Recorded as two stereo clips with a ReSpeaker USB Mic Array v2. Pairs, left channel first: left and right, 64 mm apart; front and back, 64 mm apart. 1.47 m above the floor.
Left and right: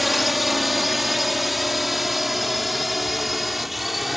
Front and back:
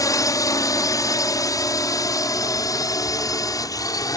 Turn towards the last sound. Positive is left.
turn(degrees=0)